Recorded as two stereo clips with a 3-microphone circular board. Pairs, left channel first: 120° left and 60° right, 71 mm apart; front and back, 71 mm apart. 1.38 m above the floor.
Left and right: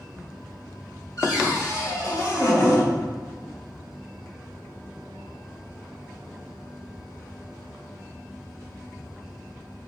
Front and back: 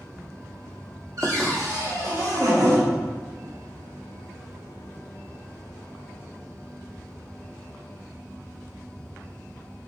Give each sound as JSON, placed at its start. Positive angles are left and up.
{"t": 1.2, "sound": "a cupboard door", "azimuth_deg": 150, "distance_m": 2.5}